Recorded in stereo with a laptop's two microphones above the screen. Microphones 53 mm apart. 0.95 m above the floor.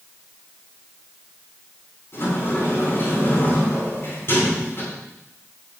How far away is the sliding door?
About 8 m.